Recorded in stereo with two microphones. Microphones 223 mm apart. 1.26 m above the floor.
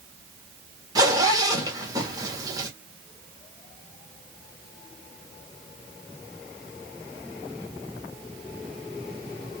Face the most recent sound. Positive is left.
turn(degrees=-15)  # may be behind; listen again after turning